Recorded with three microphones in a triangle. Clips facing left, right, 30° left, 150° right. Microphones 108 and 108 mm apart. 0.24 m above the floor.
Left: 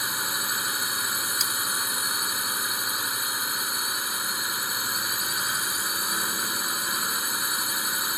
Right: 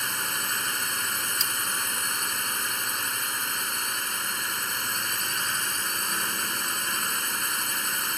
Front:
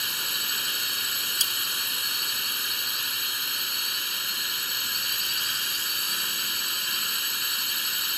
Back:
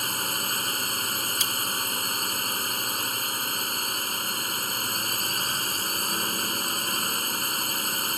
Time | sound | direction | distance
0.0 | a drone | 170° left | ?
1.4 | cutlery clinking | 5° left | ?